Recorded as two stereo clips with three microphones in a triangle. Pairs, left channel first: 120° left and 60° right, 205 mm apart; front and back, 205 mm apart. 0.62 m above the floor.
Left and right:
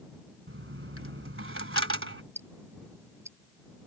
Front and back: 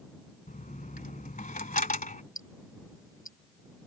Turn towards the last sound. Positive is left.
turn(degrees=20)